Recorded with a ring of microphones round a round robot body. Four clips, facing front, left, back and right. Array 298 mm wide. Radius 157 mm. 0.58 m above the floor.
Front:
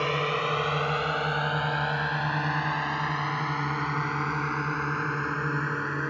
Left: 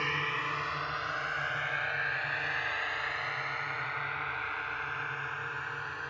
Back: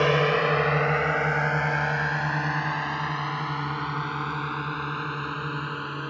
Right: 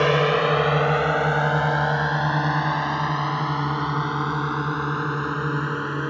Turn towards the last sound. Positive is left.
turn(degrees=-80)